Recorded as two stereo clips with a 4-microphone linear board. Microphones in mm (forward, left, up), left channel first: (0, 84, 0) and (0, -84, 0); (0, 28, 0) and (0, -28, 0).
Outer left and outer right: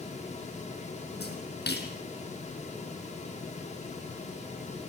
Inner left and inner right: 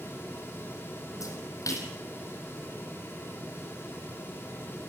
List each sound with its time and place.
1.2 s a splash: 70° left (ahead or behind), 4.5 m